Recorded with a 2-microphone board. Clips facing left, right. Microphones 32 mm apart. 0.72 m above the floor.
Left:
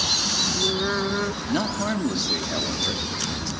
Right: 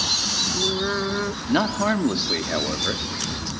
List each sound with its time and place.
1.5 s a man speaking: 25° right (ahead or behind), 1.4 m